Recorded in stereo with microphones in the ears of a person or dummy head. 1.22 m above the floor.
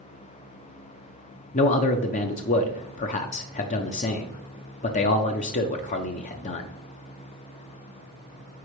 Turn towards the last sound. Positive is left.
turn(degrees=35)  # may be behind; listen again after turning